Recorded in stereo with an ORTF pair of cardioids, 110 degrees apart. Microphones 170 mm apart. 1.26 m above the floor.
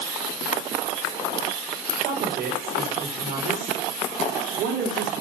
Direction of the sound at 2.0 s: 60° right.